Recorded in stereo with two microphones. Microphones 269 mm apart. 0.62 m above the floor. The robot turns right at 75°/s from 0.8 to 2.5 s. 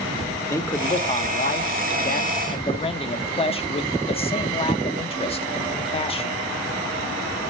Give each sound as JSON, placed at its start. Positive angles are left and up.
{"t": 0.5, "sound": "a man speaking", "azimuth_deg": 15, "distance_m": 1.0}